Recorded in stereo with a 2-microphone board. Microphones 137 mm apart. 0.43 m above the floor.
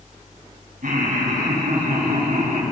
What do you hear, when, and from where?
0.8 s laughter: 70° right (ahead or behind), 3 m; by 2.6 s 75° right (ahead or behind), 4 m